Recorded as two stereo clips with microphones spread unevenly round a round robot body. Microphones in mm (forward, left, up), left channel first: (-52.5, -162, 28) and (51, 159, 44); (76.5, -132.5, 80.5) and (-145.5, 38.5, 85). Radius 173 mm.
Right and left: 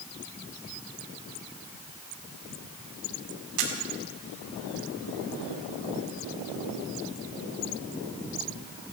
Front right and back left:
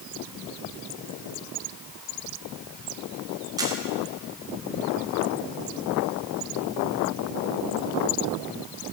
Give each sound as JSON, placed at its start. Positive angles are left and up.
{"t": 3.6, "sound": "a camera shutter", "azimuth_deg": 65, "distance_m": 2.5}